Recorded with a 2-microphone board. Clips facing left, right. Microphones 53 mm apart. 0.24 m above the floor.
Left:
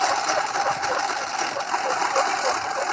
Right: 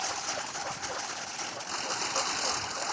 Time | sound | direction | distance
0.0 | a lawn mower | 80° left | ?